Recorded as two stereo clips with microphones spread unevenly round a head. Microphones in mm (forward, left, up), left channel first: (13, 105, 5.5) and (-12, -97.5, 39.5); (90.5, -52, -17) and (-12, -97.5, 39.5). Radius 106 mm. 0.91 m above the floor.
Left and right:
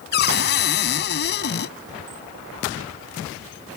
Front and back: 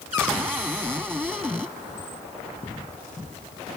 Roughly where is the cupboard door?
Behind left.